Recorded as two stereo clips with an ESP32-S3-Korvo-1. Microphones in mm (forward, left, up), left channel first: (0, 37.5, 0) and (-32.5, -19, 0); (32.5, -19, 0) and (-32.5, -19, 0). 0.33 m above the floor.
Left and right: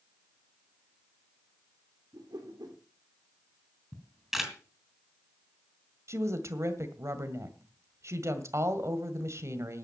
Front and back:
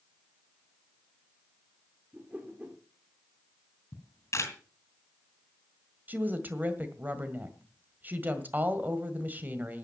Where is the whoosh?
115° right, 4.5 m.